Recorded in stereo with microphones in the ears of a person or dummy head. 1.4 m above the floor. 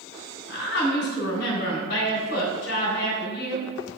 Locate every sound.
0.5 s a woman speaking: 65° left (ahead or behind), 3 m